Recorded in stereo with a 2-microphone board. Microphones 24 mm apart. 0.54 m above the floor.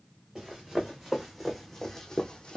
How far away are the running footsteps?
About 1.8 m.